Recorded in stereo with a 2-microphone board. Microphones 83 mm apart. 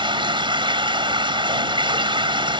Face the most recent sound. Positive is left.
turn(degrees=-75)  # may be behind; listen again after turning